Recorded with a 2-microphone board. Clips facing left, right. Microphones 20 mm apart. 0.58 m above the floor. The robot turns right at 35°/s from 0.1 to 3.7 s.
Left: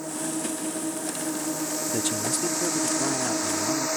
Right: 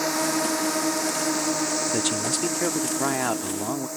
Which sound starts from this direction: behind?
A man speaking, at 1.9 s.